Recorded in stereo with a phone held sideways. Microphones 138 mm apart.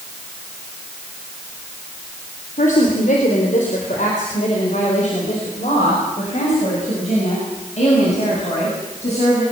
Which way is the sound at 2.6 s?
70° left (ahead or behind).